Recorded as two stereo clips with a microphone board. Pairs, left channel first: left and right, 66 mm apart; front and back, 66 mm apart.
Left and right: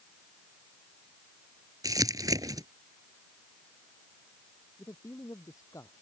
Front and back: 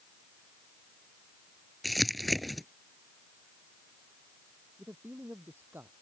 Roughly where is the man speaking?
Behind left.